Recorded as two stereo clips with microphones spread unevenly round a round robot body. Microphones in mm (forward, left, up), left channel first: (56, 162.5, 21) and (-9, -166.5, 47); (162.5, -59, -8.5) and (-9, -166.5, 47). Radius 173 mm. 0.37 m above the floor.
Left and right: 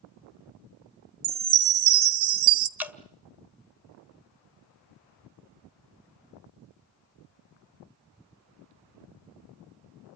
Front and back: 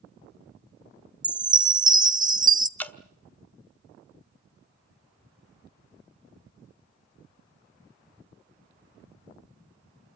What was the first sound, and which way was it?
A chime, 80° right.